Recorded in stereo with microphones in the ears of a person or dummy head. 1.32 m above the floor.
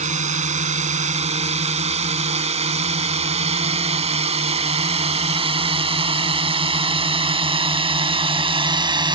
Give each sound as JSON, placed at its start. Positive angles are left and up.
{"t": 0.0, "sound": "a drone", "side_deg": -35}